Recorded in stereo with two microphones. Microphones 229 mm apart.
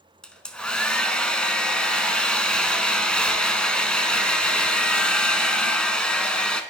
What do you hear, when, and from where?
0.2 s a hair dryer: 5° left (ahead or behind), 0.5 m